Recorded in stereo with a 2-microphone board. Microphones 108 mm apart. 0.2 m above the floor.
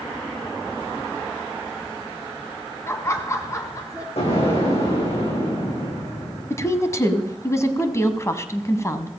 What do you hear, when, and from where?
2.9 s laughter: 25° left (ahead or behind), 1.2 m; by 4.1 s 30° left (ahead or behind), 2 m
4.2 s an explosion: 75° left (ahead or behind), 8.5 m
6.5 s a woman speaking: 30° left (ahead or behind), 1.1 m